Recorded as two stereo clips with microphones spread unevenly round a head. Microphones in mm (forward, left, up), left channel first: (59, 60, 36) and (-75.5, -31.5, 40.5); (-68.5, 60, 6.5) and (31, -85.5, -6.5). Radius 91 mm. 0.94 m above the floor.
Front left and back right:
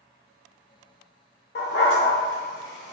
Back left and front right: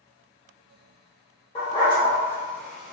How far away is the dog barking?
About 1.4 m.